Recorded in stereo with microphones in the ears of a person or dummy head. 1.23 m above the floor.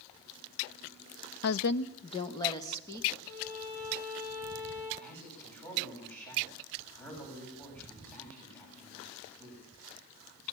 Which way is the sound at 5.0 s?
10° left (ahead or behind).